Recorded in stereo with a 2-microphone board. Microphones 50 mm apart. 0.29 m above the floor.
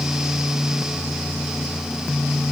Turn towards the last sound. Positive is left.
No sound to turn to.